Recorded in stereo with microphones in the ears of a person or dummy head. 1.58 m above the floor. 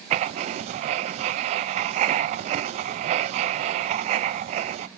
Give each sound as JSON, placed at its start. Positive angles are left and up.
{"t": 0.1, "sound": "writing", "side_deg": -45, "distance_m": 0.6}